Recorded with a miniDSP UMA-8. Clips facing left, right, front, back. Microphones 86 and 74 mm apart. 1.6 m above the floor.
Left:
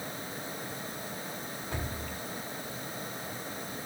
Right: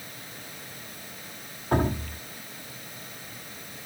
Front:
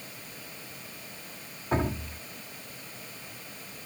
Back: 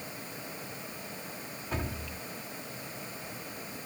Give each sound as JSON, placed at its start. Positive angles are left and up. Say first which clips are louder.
{"t": 1.7, "sound": "dripping", "louder": "right 15 dB, front 8 dB", "azimuth_deg": -55}